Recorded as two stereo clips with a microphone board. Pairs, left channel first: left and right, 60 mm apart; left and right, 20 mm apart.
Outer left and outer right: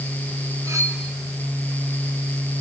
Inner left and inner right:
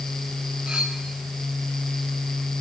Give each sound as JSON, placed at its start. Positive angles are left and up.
{"t": 0.7, "sound": "cutlery clinking", "side_deg": -75, "distance_m": 4.0}